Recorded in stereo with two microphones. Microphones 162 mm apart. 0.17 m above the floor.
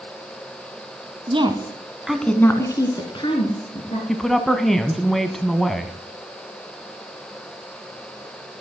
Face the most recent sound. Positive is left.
turn(degrees=0)  # may be behind; listen again after turning